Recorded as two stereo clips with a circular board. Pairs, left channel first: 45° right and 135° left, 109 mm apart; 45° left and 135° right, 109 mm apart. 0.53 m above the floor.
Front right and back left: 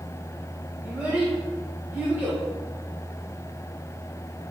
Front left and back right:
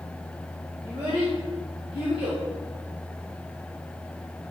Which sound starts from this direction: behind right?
A child speaking, at 0.8 s.